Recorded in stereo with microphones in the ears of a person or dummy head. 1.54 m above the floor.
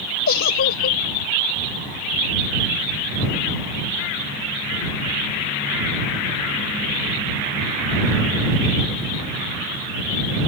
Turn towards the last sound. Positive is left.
turn(degrees=55)  # may be behind; listen again after turning